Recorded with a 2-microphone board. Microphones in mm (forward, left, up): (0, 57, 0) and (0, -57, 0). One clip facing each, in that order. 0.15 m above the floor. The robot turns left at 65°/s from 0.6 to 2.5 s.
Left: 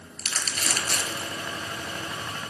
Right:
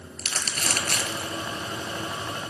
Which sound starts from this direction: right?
Crumpling, at 0.2 s.